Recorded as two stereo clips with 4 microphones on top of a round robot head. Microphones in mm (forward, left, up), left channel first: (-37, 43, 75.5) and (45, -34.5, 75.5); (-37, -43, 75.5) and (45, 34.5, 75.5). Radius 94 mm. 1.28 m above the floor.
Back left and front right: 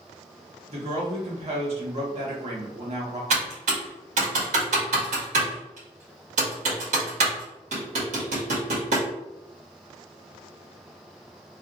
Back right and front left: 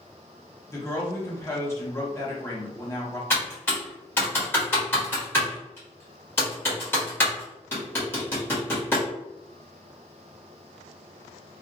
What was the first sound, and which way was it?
A woman speaking, 70° right.